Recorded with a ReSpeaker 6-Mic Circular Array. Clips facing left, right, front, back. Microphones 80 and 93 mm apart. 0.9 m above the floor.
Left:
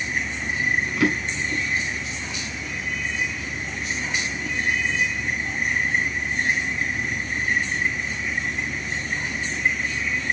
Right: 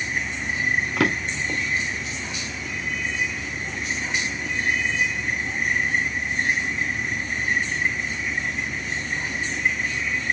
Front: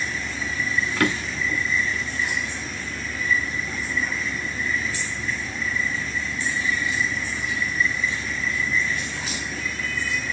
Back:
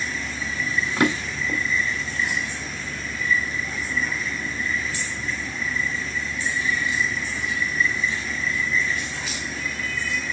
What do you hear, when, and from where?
1.0 s a drawer: 110° right, 1.4 m